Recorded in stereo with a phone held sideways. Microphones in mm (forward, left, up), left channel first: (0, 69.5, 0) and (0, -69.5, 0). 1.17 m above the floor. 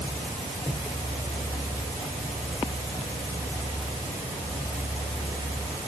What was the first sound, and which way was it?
Only background noise.